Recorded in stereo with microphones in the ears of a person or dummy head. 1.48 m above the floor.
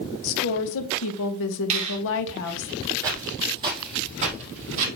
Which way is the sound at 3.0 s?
15° right (ahead or behind).